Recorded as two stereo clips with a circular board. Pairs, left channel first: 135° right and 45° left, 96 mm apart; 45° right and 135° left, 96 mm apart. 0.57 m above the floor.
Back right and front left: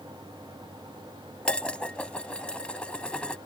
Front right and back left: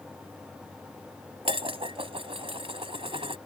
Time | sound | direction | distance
1.4 | dishes clattering | 145° left | ?